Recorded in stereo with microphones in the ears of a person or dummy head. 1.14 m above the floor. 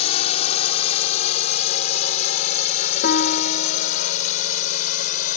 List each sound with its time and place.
0.0 s a drone: 40° left (ahead or behind); by 5.4 s 45° left (ahead or behind)
3.0 s a piano: 55° left (ahead or behind)